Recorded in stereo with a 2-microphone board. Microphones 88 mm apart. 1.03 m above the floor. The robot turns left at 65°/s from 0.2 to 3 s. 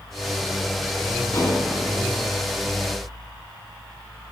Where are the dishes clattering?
35° left (ahead or behind), 1.5 m; by 1.7 s 55° left (ahead or behind), 1.5 m.